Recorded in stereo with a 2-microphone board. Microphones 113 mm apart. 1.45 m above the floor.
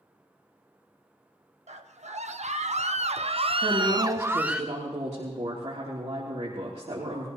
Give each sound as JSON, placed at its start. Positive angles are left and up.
{"t": 1.7, "sound": "a scream", "side_deg": -85, "distance_m": 1.4}
{"t": 3.6, "sound": "a woman speaking", "side_deg": -75, "distance_m": 3.5}